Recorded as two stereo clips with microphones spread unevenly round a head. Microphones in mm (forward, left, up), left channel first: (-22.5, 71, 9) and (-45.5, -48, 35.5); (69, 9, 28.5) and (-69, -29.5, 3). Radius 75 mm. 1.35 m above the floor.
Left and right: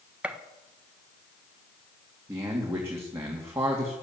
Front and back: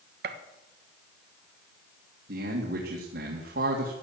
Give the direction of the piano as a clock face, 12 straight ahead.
I don't hear a piano.